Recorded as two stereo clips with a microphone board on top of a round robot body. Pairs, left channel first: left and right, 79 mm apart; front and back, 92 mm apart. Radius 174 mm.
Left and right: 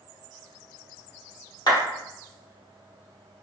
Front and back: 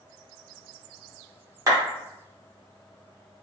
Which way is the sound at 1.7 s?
125° left.